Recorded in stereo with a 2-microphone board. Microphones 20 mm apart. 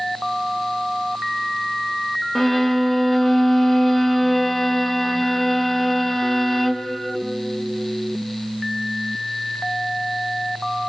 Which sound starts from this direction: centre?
A violin, at 2.4 s.